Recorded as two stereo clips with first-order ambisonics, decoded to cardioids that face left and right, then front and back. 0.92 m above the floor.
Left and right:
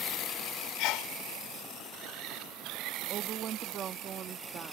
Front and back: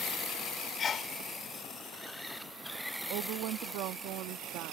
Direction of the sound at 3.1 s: 150° right.